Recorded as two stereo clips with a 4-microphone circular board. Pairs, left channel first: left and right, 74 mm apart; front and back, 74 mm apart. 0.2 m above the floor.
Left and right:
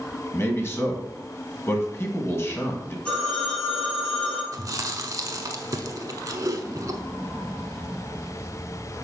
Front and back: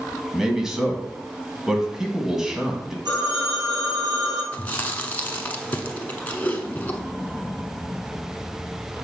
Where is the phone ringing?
165° left, 3 m.